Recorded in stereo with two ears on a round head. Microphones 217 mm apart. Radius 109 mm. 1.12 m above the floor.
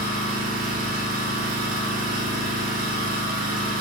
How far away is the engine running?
About 0.8 m.